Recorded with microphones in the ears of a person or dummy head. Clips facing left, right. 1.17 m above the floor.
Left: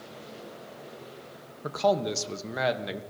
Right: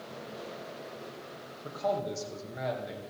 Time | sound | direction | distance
1.6 | a man speaking | 85° left | 1.0 m